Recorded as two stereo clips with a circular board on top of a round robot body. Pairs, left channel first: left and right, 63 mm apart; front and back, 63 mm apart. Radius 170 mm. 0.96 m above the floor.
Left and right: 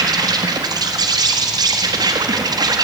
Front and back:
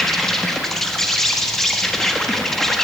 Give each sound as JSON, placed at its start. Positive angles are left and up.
{"t": 0.0, "sound": "an insect", "azimuth_deg": -85, "distance_m": 1.5}